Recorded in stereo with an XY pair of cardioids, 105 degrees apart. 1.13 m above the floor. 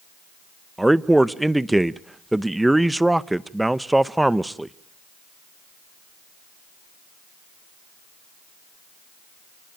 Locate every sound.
0.8 s a man speaking: 10° right, 0.8 m